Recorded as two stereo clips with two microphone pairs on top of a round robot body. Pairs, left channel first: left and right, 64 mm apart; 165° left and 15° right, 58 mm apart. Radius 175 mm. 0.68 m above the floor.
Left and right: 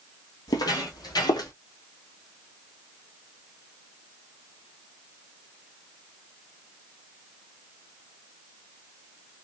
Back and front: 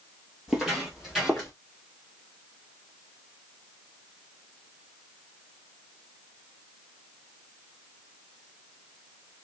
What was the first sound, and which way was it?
Footsteps, 70° left.